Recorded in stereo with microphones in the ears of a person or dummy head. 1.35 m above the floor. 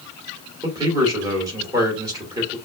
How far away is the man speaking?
About 2.5 m.